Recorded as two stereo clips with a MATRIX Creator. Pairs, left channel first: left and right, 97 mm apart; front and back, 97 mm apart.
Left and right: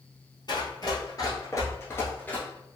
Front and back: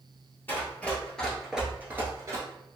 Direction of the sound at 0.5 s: 65° left.